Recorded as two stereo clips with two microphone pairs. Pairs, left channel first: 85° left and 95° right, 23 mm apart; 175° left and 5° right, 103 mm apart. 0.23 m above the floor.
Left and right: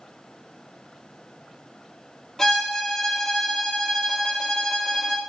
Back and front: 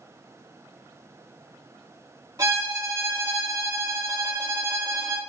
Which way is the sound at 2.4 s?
10° left.